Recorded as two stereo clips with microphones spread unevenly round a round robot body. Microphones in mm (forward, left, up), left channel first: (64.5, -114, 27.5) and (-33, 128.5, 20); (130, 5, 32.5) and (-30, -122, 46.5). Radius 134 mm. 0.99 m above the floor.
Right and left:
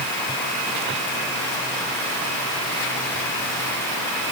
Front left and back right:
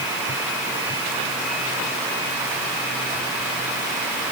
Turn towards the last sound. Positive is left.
No sound to turn to.